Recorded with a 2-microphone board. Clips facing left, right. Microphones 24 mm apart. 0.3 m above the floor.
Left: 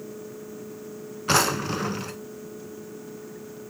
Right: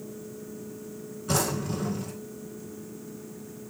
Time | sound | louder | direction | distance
1.3 | a drawer | left 6 dB | 60° left (ahead or behind) | 0.7 m